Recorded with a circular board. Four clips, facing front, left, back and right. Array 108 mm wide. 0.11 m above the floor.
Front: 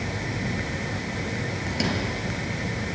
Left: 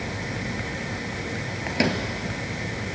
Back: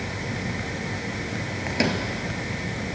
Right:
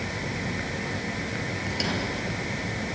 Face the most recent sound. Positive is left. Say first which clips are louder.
# left 7 dB, back 4 dB
turn(degrees=125)